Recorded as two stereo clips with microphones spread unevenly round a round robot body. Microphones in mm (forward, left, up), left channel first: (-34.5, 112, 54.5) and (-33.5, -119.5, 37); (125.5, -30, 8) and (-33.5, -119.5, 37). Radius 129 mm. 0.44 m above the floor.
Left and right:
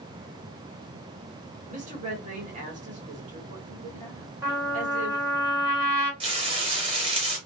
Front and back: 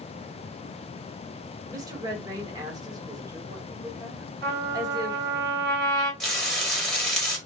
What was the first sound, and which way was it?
A woman speaking, 80° right.